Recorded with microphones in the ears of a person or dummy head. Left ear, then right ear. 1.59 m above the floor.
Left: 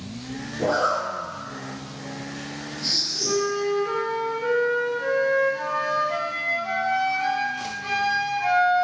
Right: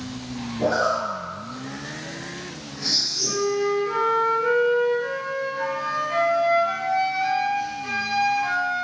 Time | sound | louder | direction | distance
0.6 | a zipper | right 1 dB | 20° right (ahead or behind) | 1.6 m
3.2 | a flute | right 1 dB | 30° left (ahead or behind) | 0.7 m